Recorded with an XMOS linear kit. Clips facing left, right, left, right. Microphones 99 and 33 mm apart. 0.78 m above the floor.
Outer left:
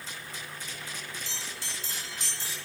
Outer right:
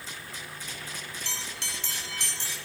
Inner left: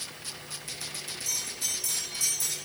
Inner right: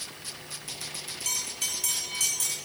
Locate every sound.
1.2 s a bell: 65° right (ahead or behind), 2 m